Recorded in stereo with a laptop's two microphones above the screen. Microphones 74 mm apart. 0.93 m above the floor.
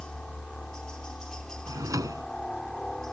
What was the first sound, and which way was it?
A helicopter, 10° left (ahead or behind).